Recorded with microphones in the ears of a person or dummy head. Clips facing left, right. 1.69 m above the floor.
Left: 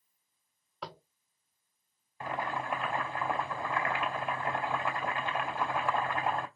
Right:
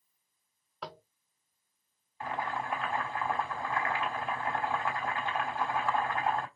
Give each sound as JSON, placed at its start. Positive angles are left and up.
{"t": 0.8, "sound": "tapping", "side_deg": 0, "distance_m": 0.6}
{"t": 2.2, "sound": "boiling", "side_deg": 15, "distance_m": 3.0}